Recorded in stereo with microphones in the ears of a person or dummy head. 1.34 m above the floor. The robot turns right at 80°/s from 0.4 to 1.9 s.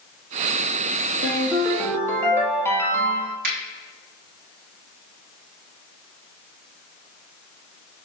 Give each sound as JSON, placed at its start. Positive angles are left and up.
{"t": 1.2, "sound": "a ringtone", "azimuth_deg": -45, "distance_m": 1.6}
{"t": 3.4, "sound": "a finger snap", "side_deg": -60, "distance_m": 1.2}